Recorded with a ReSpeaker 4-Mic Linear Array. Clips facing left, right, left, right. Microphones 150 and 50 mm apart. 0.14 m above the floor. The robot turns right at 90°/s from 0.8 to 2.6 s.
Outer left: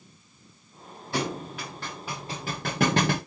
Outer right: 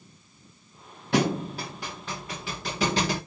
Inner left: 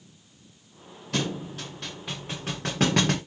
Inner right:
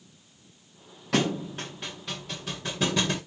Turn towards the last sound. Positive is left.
turn(degrees=55)  # may be behind; listen again after turning